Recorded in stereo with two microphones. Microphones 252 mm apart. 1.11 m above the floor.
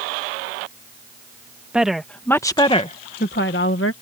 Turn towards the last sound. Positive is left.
turn(degrees=60)  # may be behind; listen again after turning